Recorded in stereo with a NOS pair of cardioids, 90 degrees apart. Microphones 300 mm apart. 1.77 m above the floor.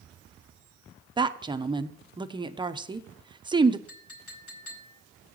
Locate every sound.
1.2 s a woman speaking: 15° right, 1.0 m
3.9 s a clink: 70° left, 4.5 m